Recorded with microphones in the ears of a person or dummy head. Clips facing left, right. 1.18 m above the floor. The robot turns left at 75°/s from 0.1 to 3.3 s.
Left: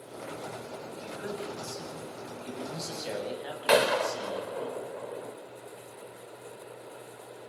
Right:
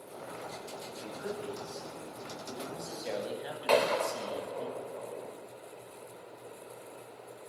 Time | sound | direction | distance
0.9 | a man speaking | 175° left | 8.5 m
3.7 | a gunshot | 15° left (ahead or behind) | 1.2 m